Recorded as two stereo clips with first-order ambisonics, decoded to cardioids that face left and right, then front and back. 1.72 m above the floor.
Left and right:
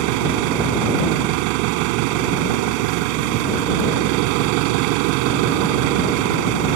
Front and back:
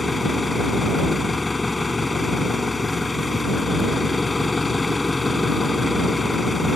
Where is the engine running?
80° right.